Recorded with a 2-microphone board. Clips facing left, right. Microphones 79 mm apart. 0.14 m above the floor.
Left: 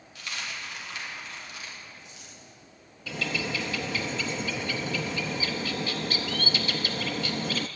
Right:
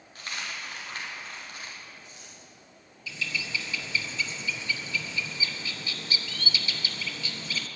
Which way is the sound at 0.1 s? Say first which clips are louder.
Even; 45° right (ahead or behind).